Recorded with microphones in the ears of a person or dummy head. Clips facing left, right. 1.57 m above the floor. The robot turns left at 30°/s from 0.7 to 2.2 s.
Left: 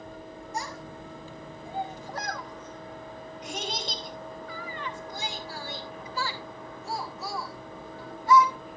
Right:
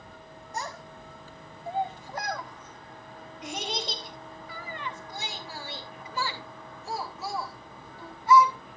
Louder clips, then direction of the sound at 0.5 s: Even; 55° right (ahead or behind).